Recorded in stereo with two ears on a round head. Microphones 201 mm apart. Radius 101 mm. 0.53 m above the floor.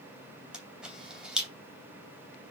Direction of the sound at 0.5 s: 5° right (ahead or behind).